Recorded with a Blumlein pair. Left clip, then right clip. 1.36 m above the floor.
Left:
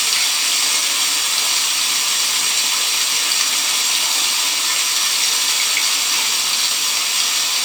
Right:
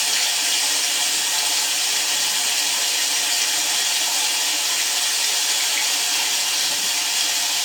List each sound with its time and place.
0.0 s running water: 60° left, 1.4 m